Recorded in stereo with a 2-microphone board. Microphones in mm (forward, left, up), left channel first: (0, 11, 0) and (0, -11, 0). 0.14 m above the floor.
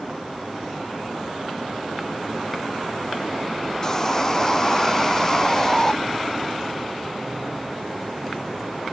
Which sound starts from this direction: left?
Sawing, at 3.8 s.